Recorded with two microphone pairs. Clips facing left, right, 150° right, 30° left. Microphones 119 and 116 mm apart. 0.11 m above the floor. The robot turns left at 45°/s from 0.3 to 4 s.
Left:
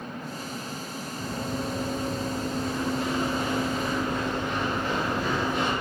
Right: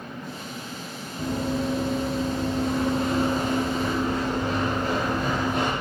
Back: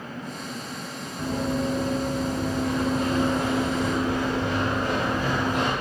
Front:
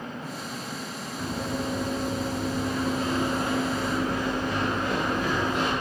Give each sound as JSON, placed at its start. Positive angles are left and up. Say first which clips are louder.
{"t": 1.2, "sound": "running footsteps", "louder": "right 6 dB, back 5 dB", "azimuth_deg": -90, "distance_m": 1.4}